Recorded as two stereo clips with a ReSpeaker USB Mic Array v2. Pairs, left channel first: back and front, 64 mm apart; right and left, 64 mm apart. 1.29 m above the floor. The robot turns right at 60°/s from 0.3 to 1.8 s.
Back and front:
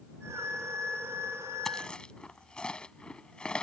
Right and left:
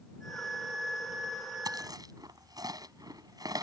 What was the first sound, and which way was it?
Chewing, 95° left.